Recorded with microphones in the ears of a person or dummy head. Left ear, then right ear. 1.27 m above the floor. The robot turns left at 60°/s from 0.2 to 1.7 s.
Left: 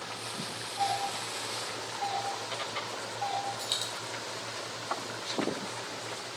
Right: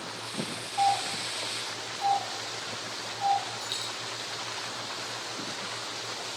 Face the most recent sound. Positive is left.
turn(degrees=20)  # may be behind; listen again after turning